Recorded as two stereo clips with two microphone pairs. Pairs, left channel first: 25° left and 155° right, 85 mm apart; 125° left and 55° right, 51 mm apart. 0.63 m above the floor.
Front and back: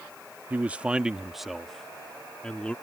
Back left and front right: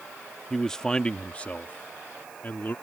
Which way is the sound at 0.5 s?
160° right.